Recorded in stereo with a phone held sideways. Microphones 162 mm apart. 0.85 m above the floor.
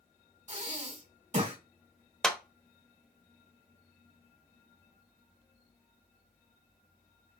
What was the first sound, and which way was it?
Breathing, 45° right (ahead or behind).